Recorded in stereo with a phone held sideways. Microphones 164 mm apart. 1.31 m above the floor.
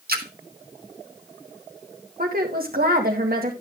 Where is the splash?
70° right (ahead or behind), 1.2 m.